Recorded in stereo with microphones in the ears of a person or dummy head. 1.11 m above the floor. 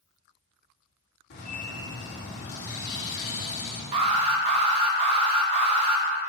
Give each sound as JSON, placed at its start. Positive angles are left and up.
{"t": 1.3, "sound": "a bird", "side_deg": 75, "distance_m": 2.0}
{"t": 3.9, "sound": "an alarm", "side_deg": -30, "distance_m": 1.0}